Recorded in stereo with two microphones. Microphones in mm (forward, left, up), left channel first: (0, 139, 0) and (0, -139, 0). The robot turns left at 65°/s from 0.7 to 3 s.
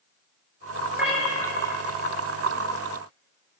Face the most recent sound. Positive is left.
turn(degrees=55)